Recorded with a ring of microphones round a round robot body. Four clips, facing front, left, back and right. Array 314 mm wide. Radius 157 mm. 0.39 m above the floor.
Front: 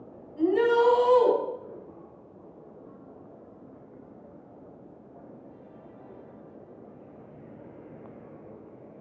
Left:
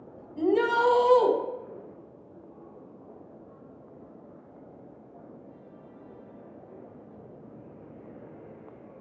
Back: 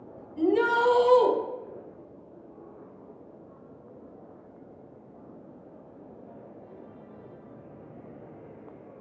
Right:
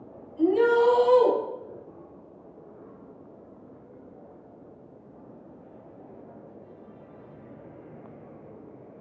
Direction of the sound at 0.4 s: 115° left.